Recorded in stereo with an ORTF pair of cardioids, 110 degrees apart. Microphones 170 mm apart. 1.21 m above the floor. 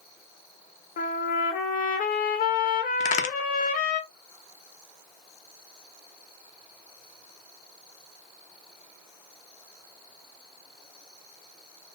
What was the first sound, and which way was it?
A trumpet, 55° left.